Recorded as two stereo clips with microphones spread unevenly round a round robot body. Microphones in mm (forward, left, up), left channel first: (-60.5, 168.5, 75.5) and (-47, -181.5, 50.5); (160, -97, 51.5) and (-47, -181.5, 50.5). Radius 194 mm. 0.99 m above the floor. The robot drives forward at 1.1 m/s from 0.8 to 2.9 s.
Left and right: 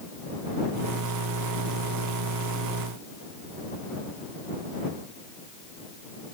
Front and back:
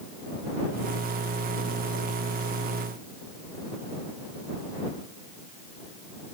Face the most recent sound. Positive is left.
No sound to turn to.